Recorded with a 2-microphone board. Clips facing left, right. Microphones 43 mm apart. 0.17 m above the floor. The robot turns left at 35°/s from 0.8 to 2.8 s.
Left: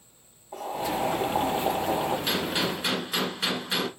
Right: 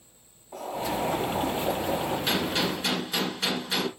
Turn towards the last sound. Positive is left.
turn(degrees=15)  # may be behind; listen again after turning